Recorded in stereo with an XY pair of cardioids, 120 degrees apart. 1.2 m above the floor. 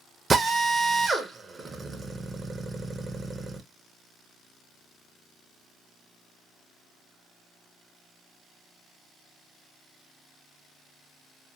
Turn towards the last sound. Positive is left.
turn(degrees=-25)